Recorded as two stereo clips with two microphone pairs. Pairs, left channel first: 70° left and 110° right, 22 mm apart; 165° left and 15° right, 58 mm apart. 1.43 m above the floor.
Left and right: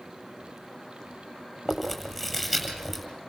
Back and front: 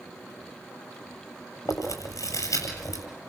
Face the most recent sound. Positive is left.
turn(degrees=170)